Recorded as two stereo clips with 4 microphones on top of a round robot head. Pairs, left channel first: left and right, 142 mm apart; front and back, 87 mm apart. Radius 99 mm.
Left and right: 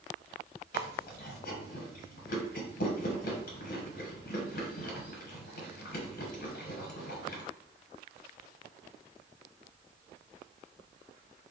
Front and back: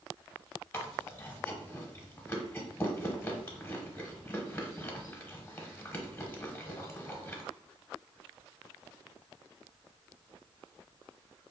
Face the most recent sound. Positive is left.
turn(degrees=65)